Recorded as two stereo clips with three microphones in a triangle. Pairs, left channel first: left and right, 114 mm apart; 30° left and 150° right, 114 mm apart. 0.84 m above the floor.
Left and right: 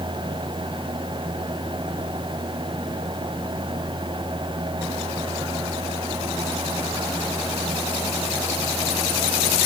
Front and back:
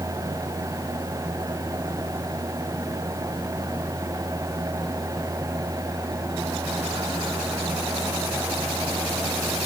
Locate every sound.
Only background noise.